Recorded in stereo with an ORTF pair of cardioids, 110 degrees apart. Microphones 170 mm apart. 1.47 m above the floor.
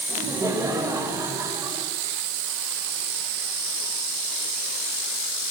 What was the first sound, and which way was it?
Laughter, 20° right.